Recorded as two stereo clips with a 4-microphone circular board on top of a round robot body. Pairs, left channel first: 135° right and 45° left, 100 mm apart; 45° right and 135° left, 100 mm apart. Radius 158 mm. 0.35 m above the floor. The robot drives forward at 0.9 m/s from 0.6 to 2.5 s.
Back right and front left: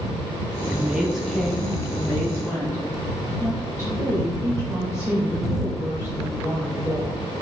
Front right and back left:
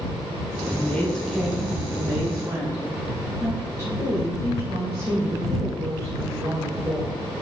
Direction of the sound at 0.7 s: 10° right.